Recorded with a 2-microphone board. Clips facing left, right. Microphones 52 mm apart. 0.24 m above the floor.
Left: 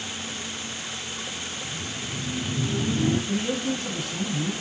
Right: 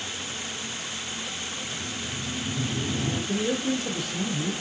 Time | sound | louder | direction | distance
1.6 | laughter | even | 40° left (ahead or behind) | 1.5 m
3.3 | a man speaking | even | 40° left (ahead or behind) | 1.5 m